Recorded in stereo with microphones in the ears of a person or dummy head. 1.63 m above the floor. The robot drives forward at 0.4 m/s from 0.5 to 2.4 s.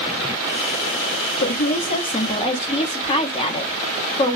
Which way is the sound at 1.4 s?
45° left (ahead or behind).